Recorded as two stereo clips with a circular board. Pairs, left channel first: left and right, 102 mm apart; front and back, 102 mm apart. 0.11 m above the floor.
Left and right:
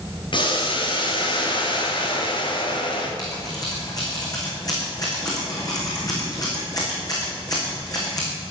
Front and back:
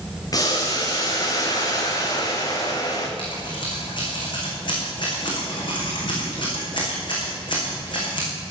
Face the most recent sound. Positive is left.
turn(degrees=40)